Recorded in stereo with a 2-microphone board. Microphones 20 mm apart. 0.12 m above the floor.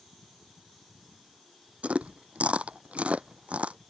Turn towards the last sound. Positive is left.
turn(degrees=-75)  # may be behind; listen again after turning